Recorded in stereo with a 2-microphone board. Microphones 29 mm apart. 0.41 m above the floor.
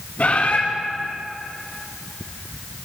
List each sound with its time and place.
0.2 s a bird: 60° left (ahead or behind), 4.5 m